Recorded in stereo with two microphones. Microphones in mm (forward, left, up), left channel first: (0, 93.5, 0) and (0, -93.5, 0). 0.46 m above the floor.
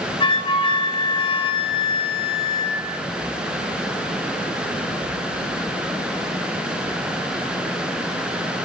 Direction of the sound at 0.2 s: 30° left (ahead or behind).